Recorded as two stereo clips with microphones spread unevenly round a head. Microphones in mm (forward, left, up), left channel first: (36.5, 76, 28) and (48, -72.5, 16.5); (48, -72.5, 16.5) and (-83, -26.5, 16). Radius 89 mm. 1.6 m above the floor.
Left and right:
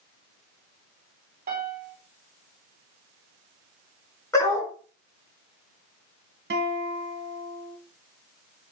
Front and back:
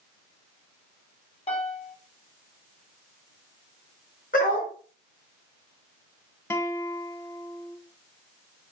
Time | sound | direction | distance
1.5 | a piano | 60° right | 3.5 m
4.3 | a dog barking | 30° left | 4.5 m
6.5 | a guitar | 90° right | 2 m